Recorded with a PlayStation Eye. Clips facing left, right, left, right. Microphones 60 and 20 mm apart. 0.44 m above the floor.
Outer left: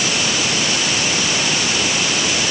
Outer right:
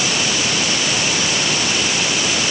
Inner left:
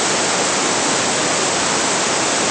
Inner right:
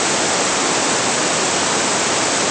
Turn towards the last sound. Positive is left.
No sound to turn to.